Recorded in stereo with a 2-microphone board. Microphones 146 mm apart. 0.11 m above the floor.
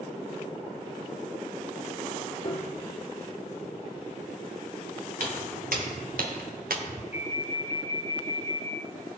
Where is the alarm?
15° right (ahead or behind), 4 m.